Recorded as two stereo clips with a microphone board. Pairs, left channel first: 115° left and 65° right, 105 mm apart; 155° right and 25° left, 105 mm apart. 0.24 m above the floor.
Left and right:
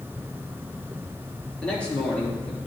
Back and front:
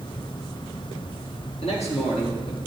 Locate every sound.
1.6 s a man speaking: 165° right, 4 m